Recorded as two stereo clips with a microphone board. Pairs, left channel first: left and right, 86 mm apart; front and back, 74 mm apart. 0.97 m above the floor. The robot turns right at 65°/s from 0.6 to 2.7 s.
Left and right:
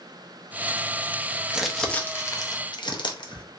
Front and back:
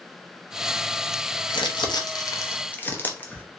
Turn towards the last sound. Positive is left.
turn(degrees=65)